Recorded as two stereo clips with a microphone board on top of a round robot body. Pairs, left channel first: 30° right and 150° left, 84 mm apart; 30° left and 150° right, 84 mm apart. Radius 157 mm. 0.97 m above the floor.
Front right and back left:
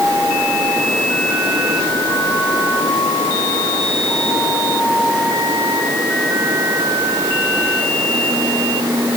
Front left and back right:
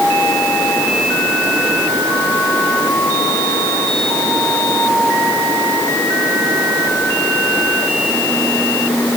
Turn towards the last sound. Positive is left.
No sound to turn to.